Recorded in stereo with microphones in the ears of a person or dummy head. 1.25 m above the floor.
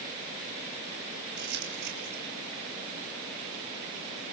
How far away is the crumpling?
About 6 m.